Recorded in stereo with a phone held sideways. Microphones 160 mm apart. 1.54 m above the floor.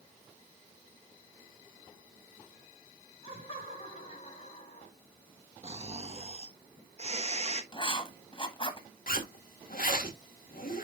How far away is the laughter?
About 5.5 m.